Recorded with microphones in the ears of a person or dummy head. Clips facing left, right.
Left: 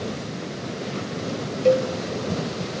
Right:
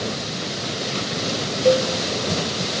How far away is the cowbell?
About 1.4 m.